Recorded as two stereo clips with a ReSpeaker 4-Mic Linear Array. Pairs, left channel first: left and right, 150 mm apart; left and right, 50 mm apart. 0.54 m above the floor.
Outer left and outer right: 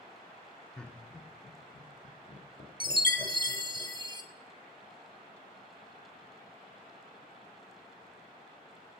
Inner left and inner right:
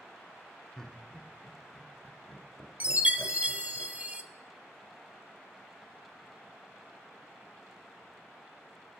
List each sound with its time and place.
0.8 s laughter: 5° left (ahead or behind), 1.1 m; by 3.8 s 70° left (ahead or behind), 2.5 m
2.8 s a chime: 30° right (ahead or behind), 0.7 m